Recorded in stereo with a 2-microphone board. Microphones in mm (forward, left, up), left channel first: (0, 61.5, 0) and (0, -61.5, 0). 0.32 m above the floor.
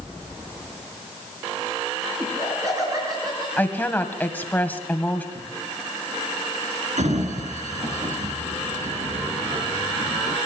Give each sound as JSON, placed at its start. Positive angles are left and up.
{"t": 2.2, "sound": "laughter", "side_deg": -25, "distance_m": 4.5}
{"t": 3.6, "sound": "a woman speaking", "side_deg": 15, "distance_m": 1.9}
{"t": 5.3, "sound": "writing", "side_deg": -60, "distance_m": 10.0}
{"t": 7.0, "sound": "a sliding door", "side_deg": -75, "distance_m": 3.5}